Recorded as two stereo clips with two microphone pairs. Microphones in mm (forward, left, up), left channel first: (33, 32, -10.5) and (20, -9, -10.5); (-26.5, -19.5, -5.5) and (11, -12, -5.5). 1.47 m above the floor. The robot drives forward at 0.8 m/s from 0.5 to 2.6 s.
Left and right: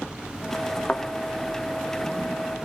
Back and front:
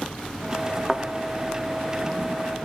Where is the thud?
90° left, 1.0 m; by 1.1 s 105° left, 1.0 m.